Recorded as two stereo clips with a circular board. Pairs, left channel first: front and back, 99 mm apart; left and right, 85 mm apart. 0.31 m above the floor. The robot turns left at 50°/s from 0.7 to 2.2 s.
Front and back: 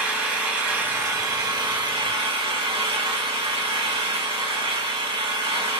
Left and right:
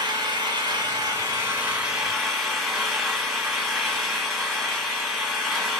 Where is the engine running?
100° right, 1.1 m; by 5.8 s 175° right, 1.1 m.